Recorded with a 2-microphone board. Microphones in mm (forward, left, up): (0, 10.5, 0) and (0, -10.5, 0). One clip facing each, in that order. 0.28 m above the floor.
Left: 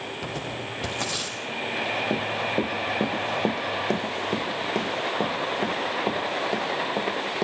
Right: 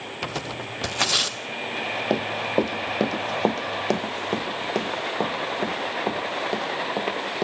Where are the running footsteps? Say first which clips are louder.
Right 2 dB; 55° right (ahead or behind), 0.7 m; by 7.5 s 10° right (ahead or behind), 3 m.